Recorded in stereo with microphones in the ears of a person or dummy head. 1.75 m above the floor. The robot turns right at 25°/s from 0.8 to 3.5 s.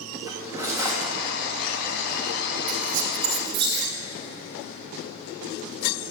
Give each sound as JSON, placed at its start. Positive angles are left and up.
{"t": 0.3, "sound": "cutlery clinking", "side_deg": -15, "distance_m": 1.7}
{"t": 2.7, "sound": "a squeak", "side_deg": -35, "distance_m": 1.2}